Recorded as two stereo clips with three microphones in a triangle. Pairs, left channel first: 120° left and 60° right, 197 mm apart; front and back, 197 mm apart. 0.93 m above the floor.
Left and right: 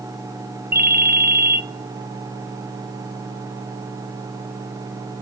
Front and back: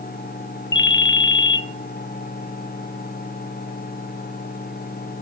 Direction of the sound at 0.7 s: 20° right.